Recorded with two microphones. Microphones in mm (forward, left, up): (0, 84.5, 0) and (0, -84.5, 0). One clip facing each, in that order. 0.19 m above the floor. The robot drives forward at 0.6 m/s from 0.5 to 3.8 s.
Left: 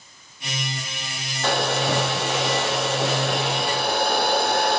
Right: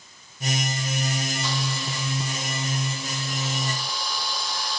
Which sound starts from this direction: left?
A hair dryer, at 1.4 s.